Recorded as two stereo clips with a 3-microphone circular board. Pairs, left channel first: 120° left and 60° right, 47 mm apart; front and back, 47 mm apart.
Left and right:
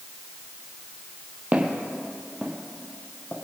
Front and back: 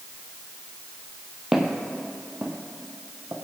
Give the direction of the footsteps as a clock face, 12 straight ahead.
4 o'clock.